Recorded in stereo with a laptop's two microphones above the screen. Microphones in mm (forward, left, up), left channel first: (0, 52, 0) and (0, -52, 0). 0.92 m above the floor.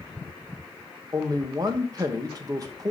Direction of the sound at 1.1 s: 35° right (ahead or behind).